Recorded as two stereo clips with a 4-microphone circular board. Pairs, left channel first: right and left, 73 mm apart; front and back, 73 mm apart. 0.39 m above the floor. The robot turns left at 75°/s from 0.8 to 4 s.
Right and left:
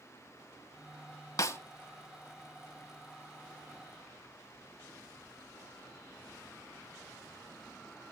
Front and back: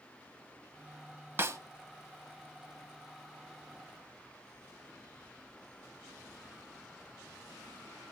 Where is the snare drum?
125° right, 0.7 m; by 1.6 s 140° right, 0.7 m.